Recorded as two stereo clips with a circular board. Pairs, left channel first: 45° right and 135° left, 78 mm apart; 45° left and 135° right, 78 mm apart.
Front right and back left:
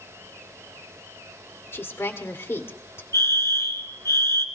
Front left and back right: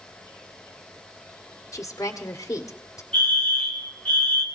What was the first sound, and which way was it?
A woman speaking, 5° left.